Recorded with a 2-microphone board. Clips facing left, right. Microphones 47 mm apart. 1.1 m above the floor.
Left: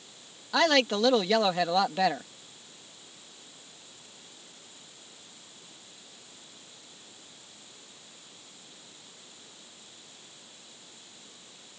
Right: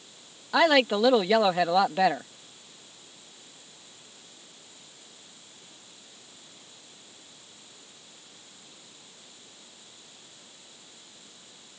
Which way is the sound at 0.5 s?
10° right (ahead or behind).